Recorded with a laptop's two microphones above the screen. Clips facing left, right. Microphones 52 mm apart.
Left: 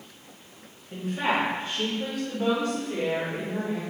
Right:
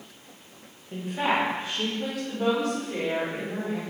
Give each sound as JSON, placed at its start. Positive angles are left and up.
{"t": 0.9, "sound": "a woman speaking", "side_deg": -15, "distance_m": 0.7}